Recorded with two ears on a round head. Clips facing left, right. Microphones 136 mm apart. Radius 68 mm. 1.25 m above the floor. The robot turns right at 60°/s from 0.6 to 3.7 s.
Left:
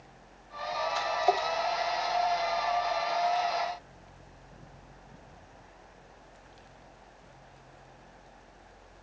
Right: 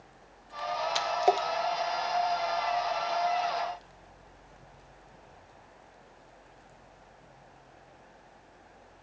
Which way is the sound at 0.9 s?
85° right.